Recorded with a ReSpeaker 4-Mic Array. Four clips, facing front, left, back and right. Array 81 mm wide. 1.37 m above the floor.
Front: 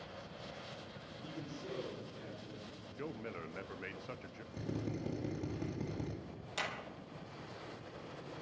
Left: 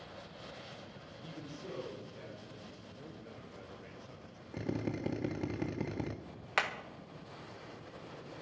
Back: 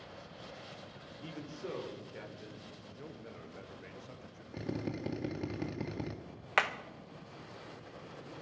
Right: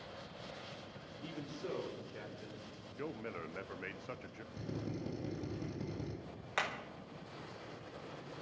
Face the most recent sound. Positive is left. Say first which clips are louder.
# left 4 dB, back 10 dB
turn(degrees=165)